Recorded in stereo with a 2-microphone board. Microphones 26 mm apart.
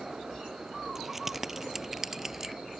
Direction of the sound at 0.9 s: 5° right (ahead or behind).